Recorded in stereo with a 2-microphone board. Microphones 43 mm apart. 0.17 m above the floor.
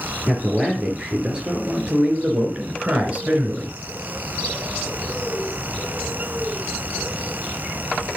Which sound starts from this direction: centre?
A man speaking, at 0.3 s.